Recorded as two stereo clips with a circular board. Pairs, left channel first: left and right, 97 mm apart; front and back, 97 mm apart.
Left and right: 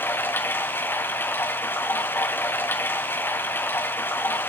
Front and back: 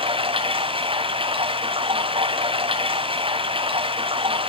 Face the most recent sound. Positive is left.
turn(degrees=155)